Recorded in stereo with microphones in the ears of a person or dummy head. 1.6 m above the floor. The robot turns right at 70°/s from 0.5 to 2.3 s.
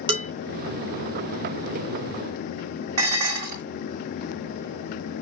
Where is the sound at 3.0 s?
45° right (ahead or behind), 2 m.